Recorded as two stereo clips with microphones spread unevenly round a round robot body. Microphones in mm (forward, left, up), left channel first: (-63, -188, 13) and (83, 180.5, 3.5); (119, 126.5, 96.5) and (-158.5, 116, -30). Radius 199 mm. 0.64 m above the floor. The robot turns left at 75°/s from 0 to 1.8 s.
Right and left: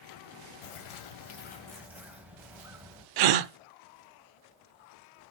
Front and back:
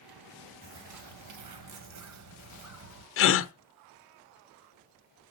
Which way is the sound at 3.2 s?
35° left.